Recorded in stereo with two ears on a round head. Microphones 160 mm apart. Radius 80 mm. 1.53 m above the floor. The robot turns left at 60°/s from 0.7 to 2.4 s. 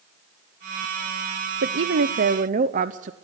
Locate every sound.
1.6 s a woman speaking: 85° right, 0.6 m; by 3.1 s 135° right, 0.6 m